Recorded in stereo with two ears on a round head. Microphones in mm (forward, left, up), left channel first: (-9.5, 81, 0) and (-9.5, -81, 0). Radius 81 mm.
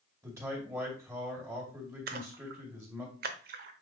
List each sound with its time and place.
0.2 s a man speaking: 15° right (ahead or behind), 2.5 m
2.1 s a splash: 55° right (ahead or behind), 0.9 m